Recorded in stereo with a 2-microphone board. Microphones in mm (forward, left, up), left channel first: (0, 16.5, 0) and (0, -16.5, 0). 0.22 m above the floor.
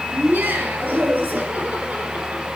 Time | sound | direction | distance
0.1 | laughter | 75° right (ahead or behind) | 4 m